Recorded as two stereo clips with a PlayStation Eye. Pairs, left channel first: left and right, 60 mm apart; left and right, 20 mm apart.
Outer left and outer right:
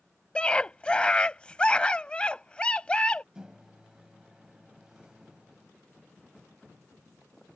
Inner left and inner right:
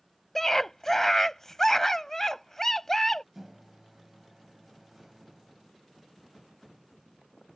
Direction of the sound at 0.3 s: 20° left (ahead or behind).